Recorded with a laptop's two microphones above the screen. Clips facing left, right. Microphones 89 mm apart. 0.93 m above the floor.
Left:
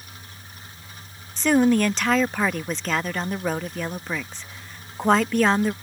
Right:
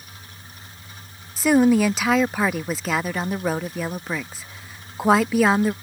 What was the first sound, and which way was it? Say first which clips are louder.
A woman speaking: right 2 dB; 5° right (ahead or behind).